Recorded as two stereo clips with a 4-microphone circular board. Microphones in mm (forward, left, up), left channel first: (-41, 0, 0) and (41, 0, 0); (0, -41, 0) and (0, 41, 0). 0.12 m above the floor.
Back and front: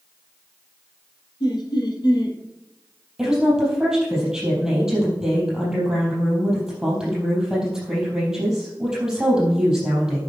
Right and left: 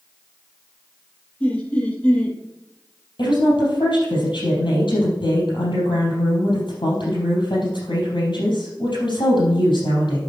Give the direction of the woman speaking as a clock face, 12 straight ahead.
3 o'clock.